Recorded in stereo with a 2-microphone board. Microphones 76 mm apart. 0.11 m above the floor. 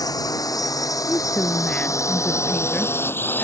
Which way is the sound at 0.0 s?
60° left (ahead or behind).